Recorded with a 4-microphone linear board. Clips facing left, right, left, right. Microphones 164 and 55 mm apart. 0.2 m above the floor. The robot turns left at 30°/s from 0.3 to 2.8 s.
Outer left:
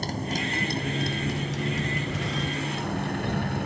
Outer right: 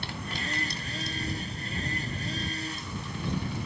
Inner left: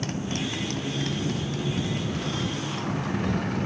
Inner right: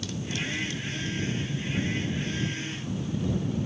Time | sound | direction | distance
0.0 | a motorcycle | 140° left | ?